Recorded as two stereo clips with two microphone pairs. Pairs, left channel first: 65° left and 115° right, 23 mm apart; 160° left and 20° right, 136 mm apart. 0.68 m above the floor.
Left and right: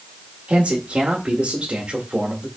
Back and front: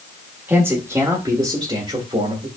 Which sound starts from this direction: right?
A man speaking, at 0.5 s.